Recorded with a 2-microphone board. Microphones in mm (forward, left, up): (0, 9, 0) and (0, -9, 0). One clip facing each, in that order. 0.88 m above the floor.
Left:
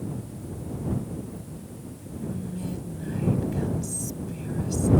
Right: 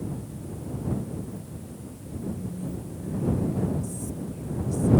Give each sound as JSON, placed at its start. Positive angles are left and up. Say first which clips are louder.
{"t": 2.2, "sound": "whispering", "louder": "left 1 dB", "side_deg": 65}